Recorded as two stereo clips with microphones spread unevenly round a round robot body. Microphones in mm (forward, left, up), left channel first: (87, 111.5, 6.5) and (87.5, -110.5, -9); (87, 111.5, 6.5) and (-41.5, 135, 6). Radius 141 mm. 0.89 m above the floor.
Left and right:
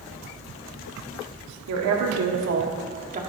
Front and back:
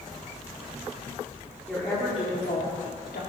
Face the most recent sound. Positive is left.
turn(degrees=-35)